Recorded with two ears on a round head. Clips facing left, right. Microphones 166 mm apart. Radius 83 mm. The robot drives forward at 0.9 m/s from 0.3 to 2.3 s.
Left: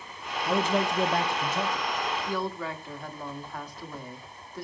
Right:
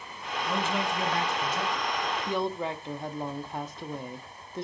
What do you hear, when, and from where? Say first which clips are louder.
0.4 s a man speaking: left 4 dB; 30° left (ahead or behind), 0.7 m; by 1.9 s 20° left (ahead or behind), 1.1 m
2.2 s a woman speaking: right 2 dB; 20° right (ahead or behind), 0.8 m